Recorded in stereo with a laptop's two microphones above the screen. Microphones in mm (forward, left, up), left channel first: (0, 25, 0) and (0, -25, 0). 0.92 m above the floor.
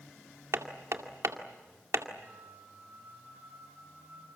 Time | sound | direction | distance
0.5 | hammering | 70° right (ahead or behind) | 2 m
2.2 | a flute | 35° right (ahead or behind) | 4 m